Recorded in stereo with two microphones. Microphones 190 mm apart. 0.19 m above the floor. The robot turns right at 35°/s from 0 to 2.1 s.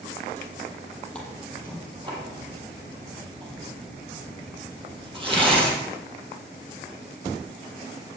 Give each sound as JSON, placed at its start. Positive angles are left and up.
{"t": 1.1, "sound": "tearing paper", "side_deg": 5, "distance_m": 4.0}